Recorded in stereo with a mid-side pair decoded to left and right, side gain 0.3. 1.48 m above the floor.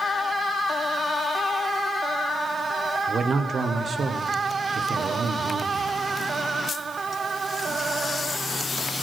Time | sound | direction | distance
3.1 | a man speaking | 65° right | 0.9 m